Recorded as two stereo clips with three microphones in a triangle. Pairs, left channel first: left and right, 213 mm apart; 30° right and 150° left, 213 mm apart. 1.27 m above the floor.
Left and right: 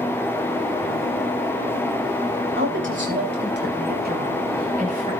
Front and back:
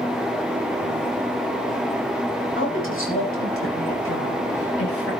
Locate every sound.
2.6 s a woman speaking: 60° right, 6 m; by 5.1 s 35° right, 7.5 m